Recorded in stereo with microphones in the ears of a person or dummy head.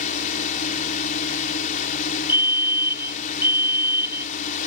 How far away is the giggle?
No giggle in this recording.